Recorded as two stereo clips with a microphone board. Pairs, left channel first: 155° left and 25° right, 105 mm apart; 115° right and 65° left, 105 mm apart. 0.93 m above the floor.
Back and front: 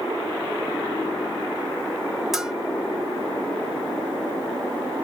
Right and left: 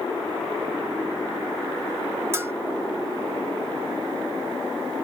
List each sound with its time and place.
2.3 s a bell: 60° left, 0.7 m